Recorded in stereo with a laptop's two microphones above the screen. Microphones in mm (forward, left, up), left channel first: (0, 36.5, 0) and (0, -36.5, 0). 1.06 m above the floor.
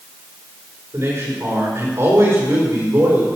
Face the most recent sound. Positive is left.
turn(degrees=-45)  # may be behind; listen again after turning